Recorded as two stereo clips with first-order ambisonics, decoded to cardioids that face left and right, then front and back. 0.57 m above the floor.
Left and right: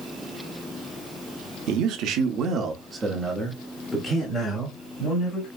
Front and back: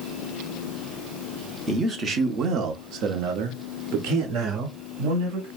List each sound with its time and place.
1.7 s a man speaking: 100° right, 1.0 m; by 5.5 s 155° left, 2.0 m